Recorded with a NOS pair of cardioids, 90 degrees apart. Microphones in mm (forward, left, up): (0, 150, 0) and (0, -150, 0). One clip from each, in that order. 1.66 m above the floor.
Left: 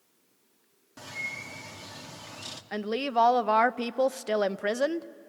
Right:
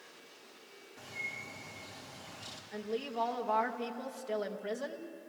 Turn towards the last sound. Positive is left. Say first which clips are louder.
# left 10 dB
turn(degrees=65)